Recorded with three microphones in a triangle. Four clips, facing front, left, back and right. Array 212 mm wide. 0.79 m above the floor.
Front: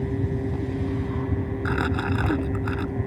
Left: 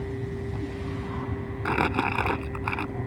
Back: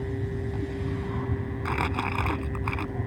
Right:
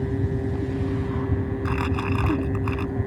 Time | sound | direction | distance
1.6 | crumpling | 75° left | ?